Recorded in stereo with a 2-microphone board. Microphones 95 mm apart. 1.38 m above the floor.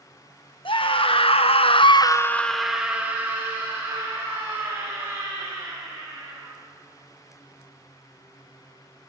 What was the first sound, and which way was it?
A scream, 65° left (ahead or behind).